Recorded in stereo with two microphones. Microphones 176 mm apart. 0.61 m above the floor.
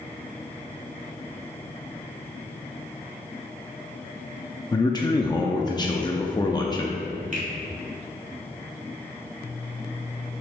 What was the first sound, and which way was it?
A man speaking, 25° left (ahead or behind).